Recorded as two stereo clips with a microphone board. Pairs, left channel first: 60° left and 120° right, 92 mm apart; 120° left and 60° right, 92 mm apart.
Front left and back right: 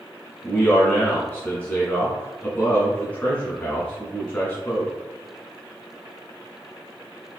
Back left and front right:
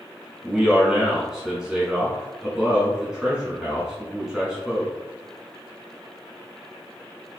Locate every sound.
0.4 s a man speaking: 10° left, 1.2 m